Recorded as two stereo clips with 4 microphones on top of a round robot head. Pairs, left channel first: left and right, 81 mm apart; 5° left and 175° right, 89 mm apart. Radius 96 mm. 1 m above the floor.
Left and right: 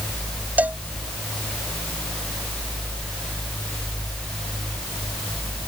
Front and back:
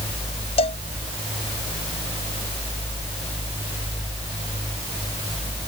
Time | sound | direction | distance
0.6 | a cowbell | 20° right | ?